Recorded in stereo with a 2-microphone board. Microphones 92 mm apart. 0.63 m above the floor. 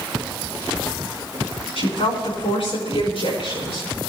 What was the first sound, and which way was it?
A woman speaking, 80° left.